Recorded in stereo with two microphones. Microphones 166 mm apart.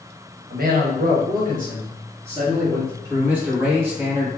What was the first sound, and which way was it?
A man speaking, 75° right (ahead or behind).